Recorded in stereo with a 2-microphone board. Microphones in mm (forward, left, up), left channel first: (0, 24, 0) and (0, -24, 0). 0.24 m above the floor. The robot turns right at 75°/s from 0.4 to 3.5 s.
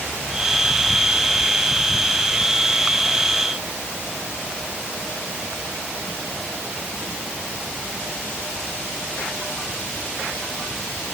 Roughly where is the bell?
I don't hear a bell.